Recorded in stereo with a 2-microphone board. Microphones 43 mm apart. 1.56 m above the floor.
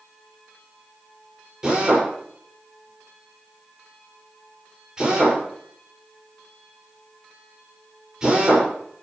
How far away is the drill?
About 6 m.